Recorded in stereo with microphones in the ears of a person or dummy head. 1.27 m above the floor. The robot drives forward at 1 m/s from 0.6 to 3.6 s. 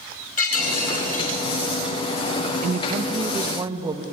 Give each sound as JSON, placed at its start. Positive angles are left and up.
{"t": 0.4, "sound": "breaking glass", "side_deg": 50, "distance_m": 4.5}
{"t": 2.6, "sound": "a woman speaking", "side_deg": -40, "distance_m": 0.7}